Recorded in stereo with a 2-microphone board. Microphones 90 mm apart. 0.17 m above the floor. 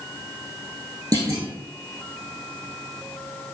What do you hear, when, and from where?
1.1 s a clunk: 40° right (ahead or behind), 1.8 m